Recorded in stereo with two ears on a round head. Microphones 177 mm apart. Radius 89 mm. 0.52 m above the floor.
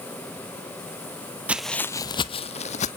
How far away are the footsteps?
About 0.6 m.